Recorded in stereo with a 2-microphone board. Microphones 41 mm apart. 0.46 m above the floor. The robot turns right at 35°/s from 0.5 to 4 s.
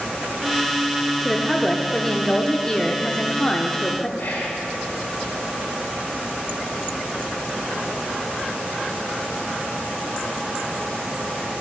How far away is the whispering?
About 1.9 m.